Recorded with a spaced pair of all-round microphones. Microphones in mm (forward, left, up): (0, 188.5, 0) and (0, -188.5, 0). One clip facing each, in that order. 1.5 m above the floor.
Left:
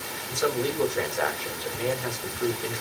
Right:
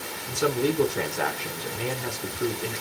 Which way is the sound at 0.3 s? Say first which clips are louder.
Right 2 dB; 40° right (ahead or behind).